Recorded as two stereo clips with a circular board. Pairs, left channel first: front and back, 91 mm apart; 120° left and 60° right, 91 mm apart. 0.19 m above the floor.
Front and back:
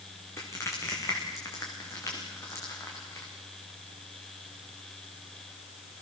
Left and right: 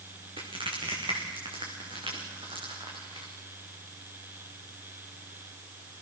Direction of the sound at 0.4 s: 60° right.